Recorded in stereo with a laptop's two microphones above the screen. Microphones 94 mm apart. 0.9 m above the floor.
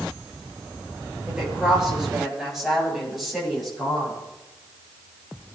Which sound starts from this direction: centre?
A woman speaking, at 1.3 s.